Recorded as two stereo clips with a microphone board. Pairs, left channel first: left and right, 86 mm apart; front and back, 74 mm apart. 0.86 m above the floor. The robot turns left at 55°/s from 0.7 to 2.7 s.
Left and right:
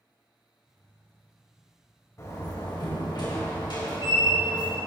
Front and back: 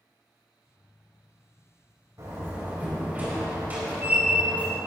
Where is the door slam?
145° left, 4 m; by 4.8 s 115° left, 4 m.